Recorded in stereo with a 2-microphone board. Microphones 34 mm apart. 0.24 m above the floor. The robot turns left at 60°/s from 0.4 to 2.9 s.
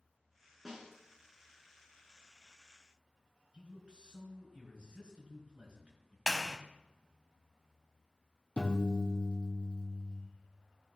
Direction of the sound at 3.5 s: 35° right (ahead or behind).